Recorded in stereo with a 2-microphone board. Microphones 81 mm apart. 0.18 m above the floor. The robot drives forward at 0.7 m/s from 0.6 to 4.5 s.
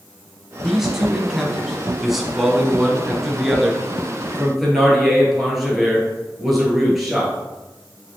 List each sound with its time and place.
0.6 s a man speaking: 5° right (ahead or behind), 1.0 m; by 7.3 s centre (ahead or behind), 2.5 m